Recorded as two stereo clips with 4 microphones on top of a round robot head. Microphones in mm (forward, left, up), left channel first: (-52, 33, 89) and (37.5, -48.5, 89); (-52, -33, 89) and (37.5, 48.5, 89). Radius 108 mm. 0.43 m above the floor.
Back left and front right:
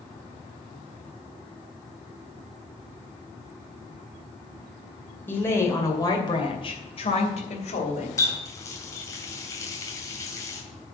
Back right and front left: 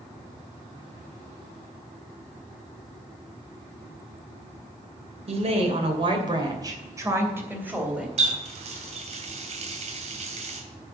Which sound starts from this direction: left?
A running tap, at 8.2 s.